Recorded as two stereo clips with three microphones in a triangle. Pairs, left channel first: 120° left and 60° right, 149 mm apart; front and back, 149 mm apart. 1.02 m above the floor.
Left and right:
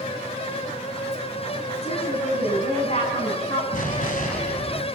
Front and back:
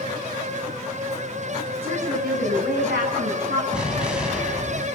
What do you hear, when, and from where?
1.8 s a woman speaking: 165° left, 8.5 m
3.7 s an explosion: 95° left, 4.5 m